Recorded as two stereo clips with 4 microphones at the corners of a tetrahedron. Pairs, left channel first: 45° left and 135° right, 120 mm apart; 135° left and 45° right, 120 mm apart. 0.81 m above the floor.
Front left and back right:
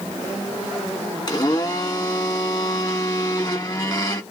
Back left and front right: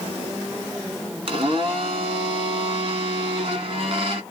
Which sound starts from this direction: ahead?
A blender, at 1.3 s.